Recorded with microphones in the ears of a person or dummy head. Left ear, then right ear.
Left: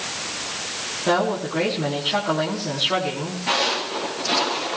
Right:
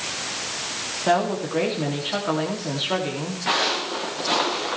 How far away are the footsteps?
About 8.5 m.